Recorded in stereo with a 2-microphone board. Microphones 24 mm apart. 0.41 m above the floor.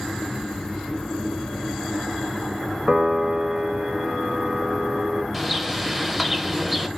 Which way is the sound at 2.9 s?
30° right (ahead or behind).